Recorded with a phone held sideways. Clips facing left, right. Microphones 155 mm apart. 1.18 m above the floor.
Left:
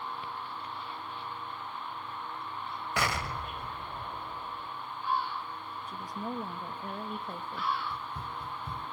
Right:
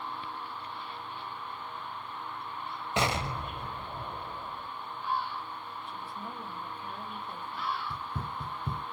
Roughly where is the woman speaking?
Left.